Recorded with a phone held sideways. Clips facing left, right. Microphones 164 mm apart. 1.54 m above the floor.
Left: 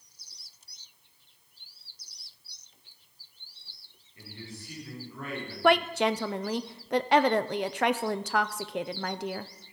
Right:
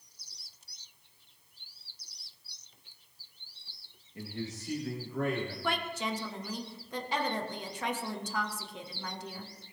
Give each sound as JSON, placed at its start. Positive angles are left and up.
{"t": 4.2, "sound": "a man speaking", "side_deg": -75, "distance_m": 2.5}
{"t": 5.6, "sound": "a woman speaking", "side_deg": 70, "distance_m": 0.6}